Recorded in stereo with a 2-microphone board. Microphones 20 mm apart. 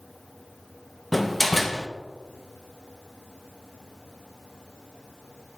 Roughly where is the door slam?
Centre.